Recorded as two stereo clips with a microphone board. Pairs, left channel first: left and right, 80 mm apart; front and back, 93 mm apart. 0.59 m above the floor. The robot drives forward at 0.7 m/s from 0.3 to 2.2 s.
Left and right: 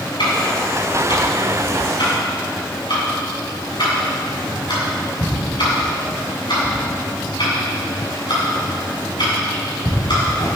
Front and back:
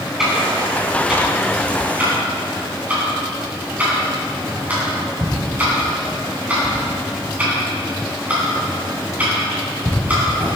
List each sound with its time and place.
0.2 s ticking: 95° left, 6 m; by 10.5 s 110° left, 6.5 m